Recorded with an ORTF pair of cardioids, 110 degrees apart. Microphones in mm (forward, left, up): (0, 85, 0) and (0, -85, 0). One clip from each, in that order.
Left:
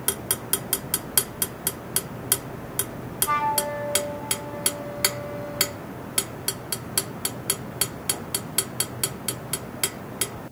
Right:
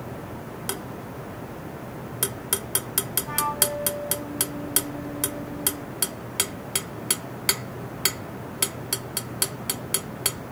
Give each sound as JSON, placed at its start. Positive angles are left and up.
{"t": 3.3, "sound": "a flute", "azimuth_deg": 60, "distance_m": 5.0}